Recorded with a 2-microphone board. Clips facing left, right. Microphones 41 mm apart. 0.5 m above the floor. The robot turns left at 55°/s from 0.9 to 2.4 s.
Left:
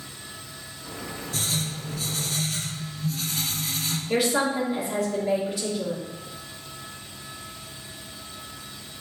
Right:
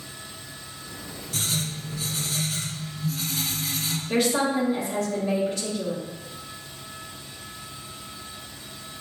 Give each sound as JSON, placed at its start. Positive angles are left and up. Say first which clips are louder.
{"t": 1.3, "sound": "writing", "louder": "right 1 dB", "azimuth_deg": -115, "distance_m": 1.7}
{"t": 4.1, "sound": "a woman speaking", "louder": "even", "side_deg": 5, "distance_m": 1.5}